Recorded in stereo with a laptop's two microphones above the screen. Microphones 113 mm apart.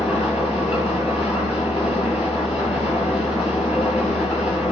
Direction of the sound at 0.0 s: 60° left (ahead or behind).